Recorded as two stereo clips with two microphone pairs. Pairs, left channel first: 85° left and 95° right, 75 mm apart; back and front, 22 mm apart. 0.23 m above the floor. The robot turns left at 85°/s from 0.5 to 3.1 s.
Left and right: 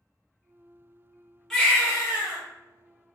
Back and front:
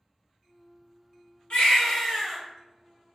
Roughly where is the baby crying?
Behind.